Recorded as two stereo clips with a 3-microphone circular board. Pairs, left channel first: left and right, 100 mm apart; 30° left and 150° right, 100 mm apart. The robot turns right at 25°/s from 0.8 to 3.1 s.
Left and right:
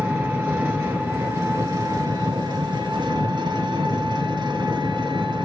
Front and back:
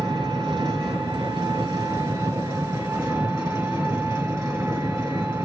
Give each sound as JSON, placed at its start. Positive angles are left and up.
{"t": 0.0, "sound": "an engine running", "azimuth_deg": -160, "distance_m": 2.0}